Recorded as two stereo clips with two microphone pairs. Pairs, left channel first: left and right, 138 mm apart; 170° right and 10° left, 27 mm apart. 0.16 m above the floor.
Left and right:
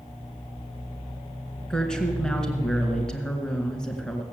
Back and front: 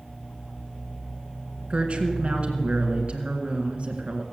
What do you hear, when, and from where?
1.7 s a woman speaking: 10° left, 2 m